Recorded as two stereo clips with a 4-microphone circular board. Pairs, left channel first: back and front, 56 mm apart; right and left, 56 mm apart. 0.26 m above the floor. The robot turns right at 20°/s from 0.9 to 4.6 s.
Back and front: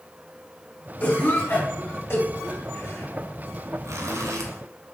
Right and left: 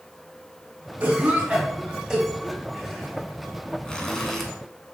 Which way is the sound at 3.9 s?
15° right.